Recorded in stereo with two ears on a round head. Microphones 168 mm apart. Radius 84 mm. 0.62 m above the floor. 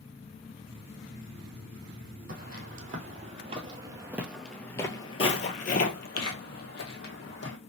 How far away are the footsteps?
About 1.4 m.